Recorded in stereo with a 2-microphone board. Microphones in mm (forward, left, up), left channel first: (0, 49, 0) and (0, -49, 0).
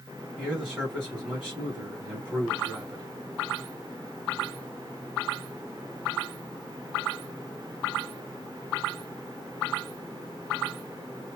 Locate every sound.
0.4 s a man speaking: 10° right (ahead or behind), 2 m